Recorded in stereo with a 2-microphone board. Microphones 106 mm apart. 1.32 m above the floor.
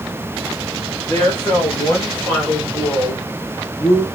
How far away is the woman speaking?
About 4.5 m.